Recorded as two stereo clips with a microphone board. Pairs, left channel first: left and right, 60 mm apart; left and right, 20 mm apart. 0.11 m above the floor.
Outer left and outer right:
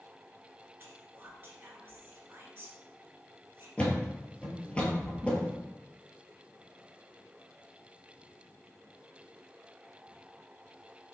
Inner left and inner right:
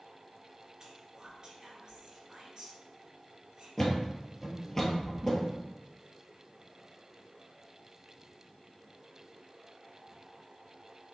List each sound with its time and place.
0.8 s whispering: 40° right (ahead or behind), 1.4 m
3.8 s a thud: 20° left (ahead or behind), 1.2 m